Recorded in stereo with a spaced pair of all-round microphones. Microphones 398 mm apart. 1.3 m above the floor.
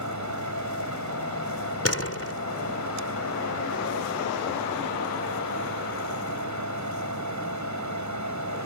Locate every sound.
0.0 s a fan: 45° right (ahead or behind)
1.9 s a door slam: 35° left (ahead or behind)